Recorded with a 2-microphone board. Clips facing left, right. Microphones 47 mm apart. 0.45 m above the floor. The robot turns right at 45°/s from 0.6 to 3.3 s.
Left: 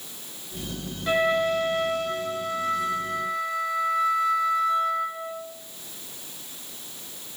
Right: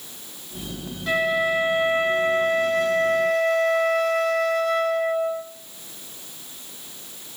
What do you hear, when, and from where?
1.1 s a flute: 175° left, 1.5 m; by 5.4 s 85° right, 1.5 m